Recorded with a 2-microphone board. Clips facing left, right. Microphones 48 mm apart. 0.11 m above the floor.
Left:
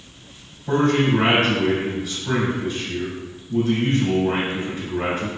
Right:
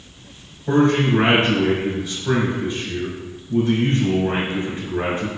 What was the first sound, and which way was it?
A man speaking, 25° right (ahead or behind).